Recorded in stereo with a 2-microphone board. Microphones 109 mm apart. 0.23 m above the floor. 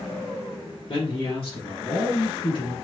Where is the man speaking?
55° left (ahead or behind), 2.5 m.